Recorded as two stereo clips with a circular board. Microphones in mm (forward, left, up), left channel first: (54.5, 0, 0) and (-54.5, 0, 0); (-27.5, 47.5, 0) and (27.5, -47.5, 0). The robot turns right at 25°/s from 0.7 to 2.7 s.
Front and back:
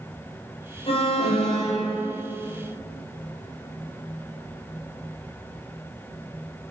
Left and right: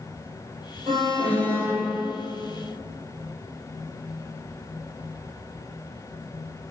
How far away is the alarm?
About 4.5 m.